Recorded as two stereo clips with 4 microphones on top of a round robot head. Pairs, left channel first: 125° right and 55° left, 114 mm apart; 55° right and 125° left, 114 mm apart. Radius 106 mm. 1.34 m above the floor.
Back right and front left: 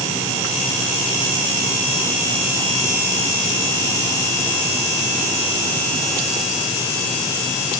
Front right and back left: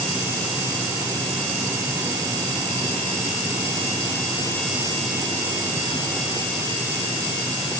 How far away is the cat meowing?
I don't hear a cat meowing.